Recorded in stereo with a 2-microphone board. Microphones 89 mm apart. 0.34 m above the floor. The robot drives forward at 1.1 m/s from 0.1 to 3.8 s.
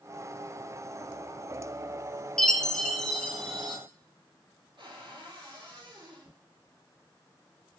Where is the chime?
5° left (ahead or behind), 1.7 m.